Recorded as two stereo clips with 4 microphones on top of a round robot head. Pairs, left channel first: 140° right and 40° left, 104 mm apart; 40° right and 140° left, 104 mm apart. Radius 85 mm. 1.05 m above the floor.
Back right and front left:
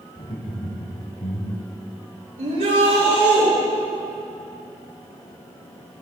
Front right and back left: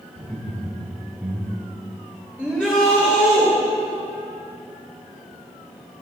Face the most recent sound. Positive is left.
turn(degrees=35)